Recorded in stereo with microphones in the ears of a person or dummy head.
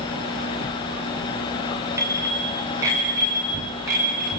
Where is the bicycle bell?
20° right (ahead or behind), 5 m; by 4.3 s 15° right (ahead or behind), 6.5 m.